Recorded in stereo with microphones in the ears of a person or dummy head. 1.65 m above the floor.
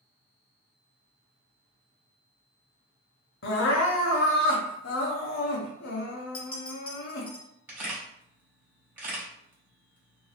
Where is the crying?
50° left (ahead or behind), 0.6 m.